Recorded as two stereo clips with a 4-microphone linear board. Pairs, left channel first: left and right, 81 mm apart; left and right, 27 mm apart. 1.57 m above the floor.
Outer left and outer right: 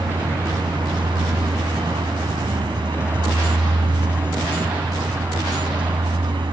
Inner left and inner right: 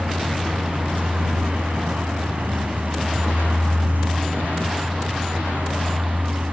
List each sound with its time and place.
0.0 s a vehicle: 80° right